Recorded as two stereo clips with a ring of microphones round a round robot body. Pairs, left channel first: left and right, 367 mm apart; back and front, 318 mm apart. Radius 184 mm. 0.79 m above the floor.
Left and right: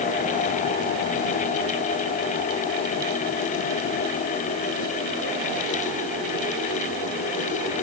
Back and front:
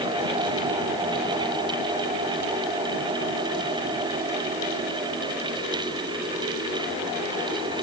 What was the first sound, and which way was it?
Only background noise.